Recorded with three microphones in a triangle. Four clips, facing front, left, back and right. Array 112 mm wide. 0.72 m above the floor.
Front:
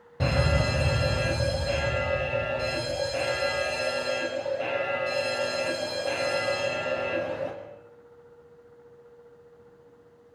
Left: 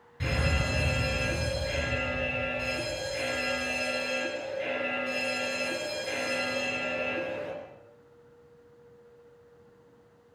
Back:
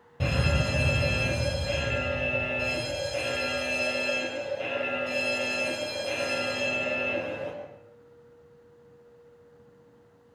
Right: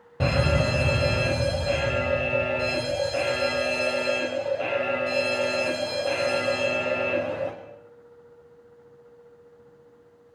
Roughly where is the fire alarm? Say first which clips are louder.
Right 8 dB, front 3 dB; right.